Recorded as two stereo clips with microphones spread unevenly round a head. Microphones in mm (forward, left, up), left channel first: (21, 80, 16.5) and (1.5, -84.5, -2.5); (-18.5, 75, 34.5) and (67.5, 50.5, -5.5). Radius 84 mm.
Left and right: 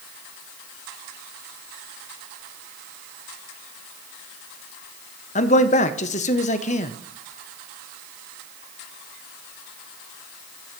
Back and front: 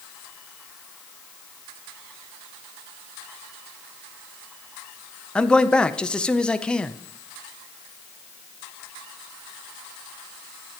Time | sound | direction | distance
5.3 | a man speaking | 110° left | 0.6 m